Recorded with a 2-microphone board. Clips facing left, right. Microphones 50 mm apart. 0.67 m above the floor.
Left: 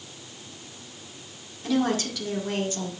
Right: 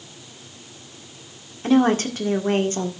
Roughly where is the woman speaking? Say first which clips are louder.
Right 7 dB; right.